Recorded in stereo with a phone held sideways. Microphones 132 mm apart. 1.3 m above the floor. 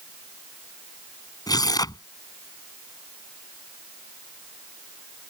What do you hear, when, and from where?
1.5 s tearing paper: 30° left (ahead or behind)